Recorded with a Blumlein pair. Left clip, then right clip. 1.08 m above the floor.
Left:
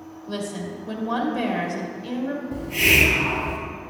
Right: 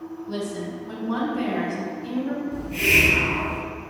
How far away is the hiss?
About 2.5 m.